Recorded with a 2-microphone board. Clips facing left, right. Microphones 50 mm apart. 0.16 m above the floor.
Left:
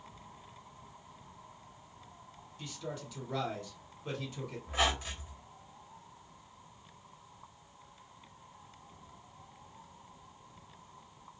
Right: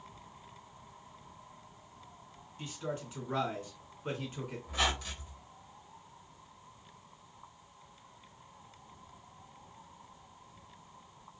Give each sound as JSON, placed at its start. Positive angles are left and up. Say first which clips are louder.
{"t": 2.6, "sound": "a man speaking", "louder": "right 3 dB", "side_deg": -25, "distance_m": 2.0}
{"t": 4.7, "sound": "a squeak", "louder": "left 2 dB", "side_deg": 25, "distance_m": 1.4}